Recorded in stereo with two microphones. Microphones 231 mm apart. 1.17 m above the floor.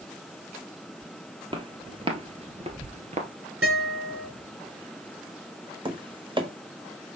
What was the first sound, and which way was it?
Footsteps, 20° right (ahead or behind).